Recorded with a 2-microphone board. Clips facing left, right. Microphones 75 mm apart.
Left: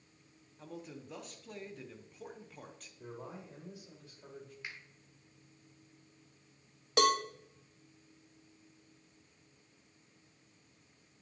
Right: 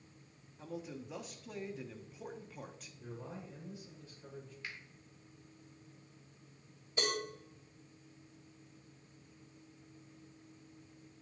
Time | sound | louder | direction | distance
0.6 | a man speaking | right 3 dB | 5° right (ahead or behind) | 0.9 m
3.0 | a man speaking | left 1 dB | 55° left (ahead or behind) | 4 m
4.6 | a finger snap | even | 20° left (ahead or behind) | 1.8 m
7.0 | a cowbell | left 9 dB | 75° left (ahead or behind) | 0.9 m